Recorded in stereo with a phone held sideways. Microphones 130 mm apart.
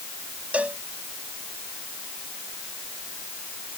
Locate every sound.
0.5 s a cowbell: 10° right (ahead or behind)